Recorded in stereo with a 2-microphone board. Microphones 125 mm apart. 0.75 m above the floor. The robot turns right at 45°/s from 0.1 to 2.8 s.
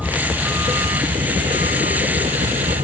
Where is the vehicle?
Centre (ahead or behind); by 2.9 s 65° right (ahead or behind).